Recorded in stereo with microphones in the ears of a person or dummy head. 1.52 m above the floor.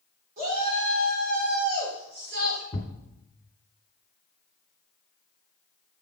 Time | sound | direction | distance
0.4 | a shout | 45° right (ahead or behind) | 4 m
2.7 | a thud | 30° left (ahead or behind) | 1.7 m